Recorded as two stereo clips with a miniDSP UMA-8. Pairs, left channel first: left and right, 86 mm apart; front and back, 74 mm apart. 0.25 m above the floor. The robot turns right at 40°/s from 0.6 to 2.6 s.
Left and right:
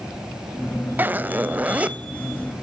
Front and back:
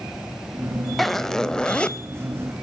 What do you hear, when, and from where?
1.0 s a zipper: 85° right, 0.5 m; by 2.0 s 45° right, 0.5 m